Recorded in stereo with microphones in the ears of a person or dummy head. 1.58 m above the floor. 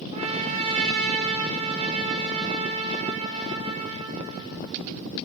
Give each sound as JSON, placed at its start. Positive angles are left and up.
{"t": 0.1, "sound": "a trumpet", "side_deg": -30, "distance_m": 3.5}